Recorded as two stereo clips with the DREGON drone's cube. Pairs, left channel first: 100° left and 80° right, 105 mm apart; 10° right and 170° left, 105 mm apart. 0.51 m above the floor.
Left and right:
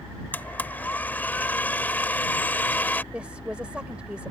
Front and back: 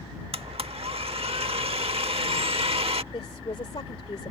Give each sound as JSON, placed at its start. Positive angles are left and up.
{"t": 0.3, "sound": "a blender", "azimuth_deg": 170}
{"t": 3.1, "sound": "a woman speaking", "azimuth_deg": 0}